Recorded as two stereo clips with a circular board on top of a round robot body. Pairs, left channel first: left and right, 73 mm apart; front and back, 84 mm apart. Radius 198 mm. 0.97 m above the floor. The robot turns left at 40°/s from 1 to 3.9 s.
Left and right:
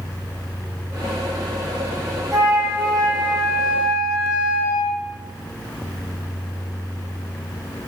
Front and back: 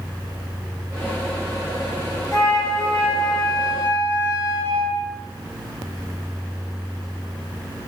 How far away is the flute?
About 1.2 m.